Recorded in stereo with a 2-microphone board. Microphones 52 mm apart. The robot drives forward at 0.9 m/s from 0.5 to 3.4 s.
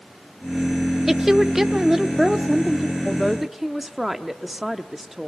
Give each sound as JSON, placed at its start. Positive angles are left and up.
{"t": 1.1, "sound": "a woman speaking", "side_deg": -5, "distance_m": 0.9}
{"t": 3.0, "sound": "a man speaking", "side_deg": -5, "distance_m": 0.7}